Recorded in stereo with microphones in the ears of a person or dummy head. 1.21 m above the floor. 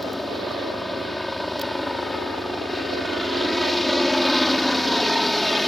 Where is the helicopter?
Centre (ahead or behind).